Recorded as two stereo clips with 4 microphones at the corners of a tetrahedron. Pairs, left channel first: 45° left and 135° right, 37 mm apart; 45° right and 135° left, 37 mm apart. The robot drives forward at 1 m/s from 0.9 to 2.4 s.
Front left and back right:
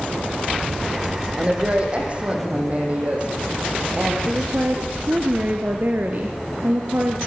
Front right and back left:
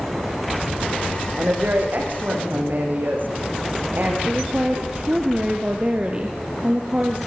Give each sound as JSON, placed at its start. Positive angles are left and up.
{"t": 1.4, "sound": "a woman speaking", "azimuth_deg": 165, "distance_m": 7.5}
{"t": 4.2, "sound": "a woman speaking", "azimuth_deg": -170, "distance_m": 2.5}